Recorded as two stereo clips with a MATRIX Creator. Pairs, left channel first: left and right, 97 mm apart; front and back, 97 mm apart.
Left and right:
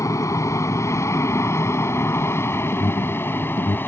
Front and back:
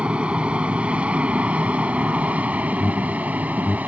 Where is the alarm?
70° left.